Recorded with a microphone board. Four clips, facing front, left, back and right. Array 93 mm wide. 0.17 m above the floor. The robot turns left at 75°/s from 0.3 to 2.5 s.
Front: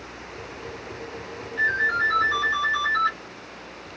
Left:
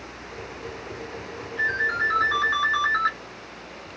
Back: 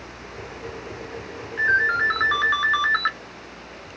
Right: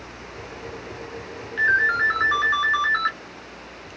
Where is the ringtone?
105° right, 1.2 m; by 3.1 s 175° right, 1.2 m.